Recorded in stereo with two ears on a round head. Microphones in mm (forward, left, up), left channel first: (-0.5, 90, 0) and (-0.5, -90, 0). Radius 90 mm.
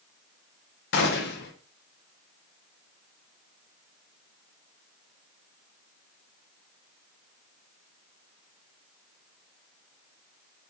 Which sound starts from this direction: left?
A gunshot, at 0.9 s.